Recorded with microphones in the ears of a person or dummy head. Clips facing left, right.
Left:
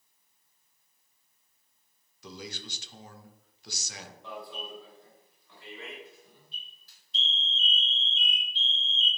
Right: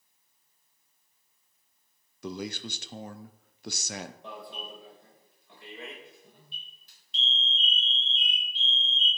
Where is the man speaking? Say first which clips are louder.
Right 7 dB; 50° right (ahead or behind), 0.6 m.